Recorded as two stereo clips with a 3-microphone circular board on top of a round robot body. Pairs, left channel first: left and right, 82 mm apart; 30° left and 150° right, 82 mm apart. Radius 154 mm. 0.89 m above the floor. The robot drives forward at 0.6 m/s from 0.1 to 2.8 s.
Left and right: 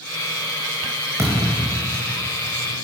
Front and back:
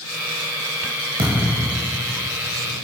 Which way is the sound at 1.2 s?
150° right.